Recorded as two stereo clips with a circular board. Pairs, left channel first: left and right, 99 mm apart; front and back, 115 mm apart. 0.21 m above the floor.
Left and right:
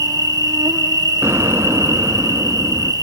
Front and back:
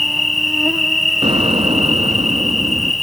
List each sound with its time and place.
0.0 s an insect: 90° right, 1.0 m
1.2 s an explosion: 150° right, 1.0 m